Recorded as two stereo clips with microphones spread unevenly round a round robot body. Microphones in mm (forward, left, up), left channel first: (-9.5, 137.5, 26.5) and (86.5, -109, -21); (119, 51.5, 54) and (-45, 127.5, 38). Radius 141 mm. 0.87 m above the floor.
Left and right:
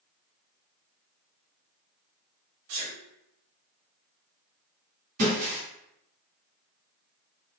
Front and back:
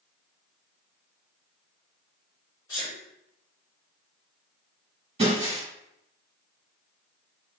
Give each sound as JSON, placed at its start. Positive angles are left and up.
{"t": 2.7, "sound": "a sneeze", "azimuth_deg": -95, "distance_m": 1.7}
{"t": 5.2, "sound": "breaking glass", "azimuth_deg": -135, "distance_m": 1.9}